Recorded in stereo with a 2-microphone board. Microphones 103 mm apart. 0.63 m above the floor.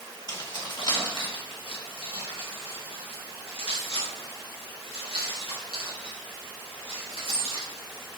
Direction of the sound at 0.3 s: 45° left (ahead or behind).